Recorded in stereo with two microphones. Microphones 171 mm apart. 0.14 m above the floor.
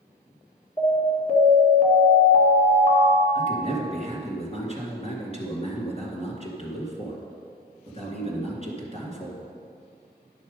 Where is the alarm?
40° left (ahead or behind), 1.9 m.